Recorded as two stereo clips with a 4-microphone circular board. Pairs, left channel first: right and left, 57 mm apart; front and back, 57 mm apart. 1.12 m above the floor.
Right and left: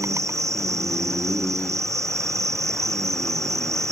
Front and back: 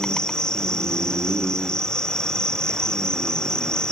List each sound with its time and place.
0.0 s an insect: 80° left